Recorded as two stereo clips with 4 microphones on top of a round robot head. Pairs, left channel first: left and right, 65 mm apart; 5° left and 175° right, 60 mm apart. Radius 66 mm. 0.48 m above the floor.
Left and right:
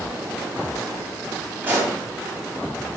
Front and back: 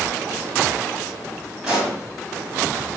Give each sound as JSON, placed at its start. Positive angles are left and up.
{"t": 1.6, "sound": "a pop", "azimuth_deg": -115, "distance_m": 1.3}